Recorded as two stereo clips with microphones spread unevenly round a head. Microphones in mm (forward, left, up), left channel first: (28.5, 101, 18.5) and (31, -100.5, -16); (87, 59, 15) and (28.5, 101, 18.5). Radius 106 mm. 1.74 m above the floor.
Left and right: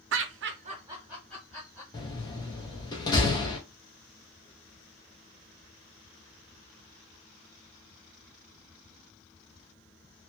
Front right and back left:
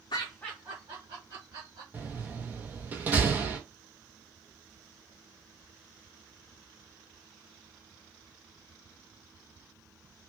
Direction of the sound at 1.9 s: 115° left.